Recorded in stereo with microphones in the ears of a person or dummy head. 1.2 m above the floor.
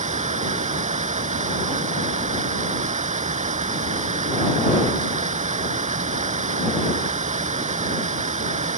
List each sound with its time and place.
0.0 s running water: 30° right (ahead or behind)